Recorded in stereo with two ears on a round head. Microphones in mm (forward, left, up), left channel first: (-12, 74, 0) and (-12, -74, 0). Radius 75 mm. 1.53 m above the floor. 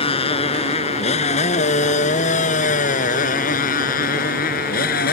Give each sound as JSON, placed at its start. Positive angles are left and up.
{"t": 0.0, "sound": "a motorcycle", "side_deg": 35}